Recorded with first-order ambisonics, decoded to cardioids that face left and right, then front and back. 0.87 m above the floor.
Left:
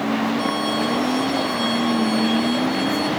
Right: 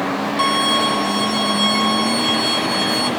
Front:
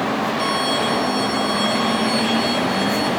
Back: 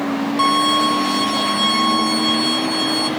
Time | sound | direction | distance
0.4 | a violin | 135° right | 2.5 m